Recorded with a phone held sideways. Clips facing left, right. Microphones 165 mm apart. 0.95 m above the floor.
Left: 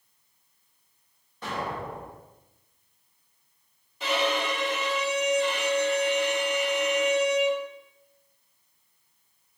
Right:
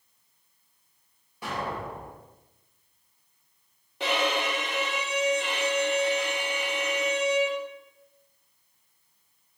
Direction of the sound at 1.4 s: 10° right (ahead or behind).